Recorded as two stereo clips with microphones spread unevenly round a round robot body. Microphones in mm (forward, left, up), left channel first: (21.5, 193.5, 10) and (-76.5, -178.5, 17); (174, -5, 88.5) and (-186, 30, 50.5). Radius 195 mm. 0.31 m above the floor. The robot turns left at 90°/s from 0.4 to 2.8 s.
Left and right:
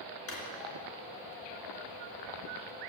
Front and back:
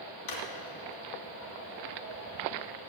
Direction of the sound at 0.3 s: 20° left.